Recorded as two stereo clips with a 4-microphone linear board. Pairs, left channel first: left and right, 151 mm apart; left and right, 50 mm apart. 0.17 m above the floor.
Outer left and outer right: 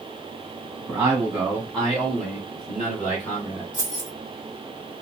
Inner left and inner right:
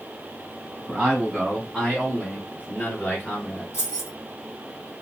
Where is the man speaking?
15° right (ahead or behind), 1.7 m; by 3.6 s 40° left (ahead or behind), 2 m.